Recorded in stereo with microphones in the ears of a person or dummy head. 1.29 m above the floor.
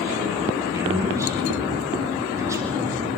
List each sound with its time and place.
0.7 s a man speaking: 20° right (ahead or behind), 9 m